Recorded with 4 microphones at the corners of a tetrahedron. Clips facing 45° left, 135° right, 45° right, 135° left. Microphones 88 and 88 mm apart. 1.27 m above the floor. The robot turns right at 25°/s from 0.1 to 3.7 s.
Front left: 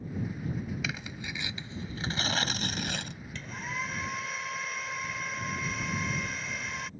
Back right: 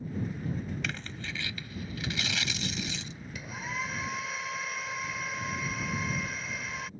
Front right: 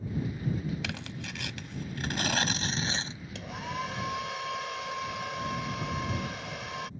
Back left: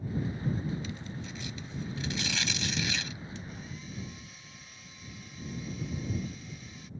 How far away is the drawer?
No drawer in this recording.